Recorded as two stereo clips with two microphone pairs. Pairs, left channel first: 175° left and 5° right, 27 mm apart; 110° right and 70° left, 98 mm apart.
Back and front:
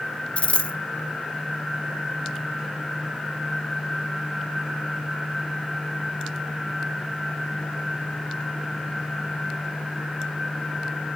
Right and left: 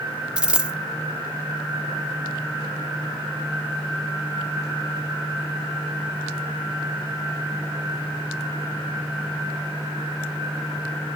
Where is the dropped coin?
150° left, 0.8 m.